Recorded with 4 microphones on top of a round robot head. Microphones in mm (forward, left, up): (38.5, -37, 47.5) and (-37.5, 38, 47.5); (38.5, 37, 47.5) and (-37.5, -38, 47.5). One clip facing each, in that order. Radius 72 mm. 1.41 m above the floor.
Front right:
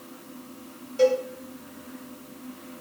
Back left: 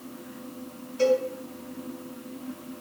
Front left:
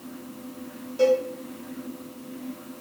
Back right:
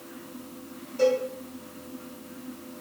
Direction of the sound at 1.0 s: 30° right.